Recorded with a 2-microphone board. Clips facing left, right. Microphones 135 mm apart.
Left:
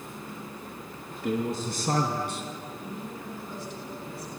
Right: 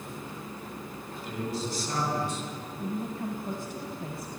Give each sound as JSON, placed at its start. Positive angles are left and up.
{"t": 1.2, "sound": "a man speaking", "side_deg": 75, "distance_m": 4.0}
{"t": 2.8, "sound": "a woman speaking", "side_deg": -50, "distance_m": 2.5}